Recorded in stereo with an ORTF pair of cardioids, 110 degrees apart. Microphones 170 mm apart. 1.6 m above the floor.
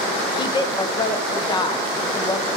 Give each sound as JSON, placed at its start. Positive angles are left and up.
{"t": 0.3, "sound": "a woman speaking", "azimuth_deg": 25, "distance_m": 0.9}